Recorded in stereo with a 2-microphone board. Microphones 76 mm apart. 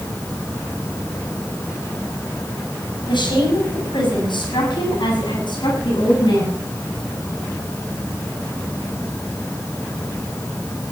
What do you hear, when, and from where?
3.1 s a woman speaking: 80° left, 5.5 m; by 6.6 s 70° left (ahead or behind), 9.5 m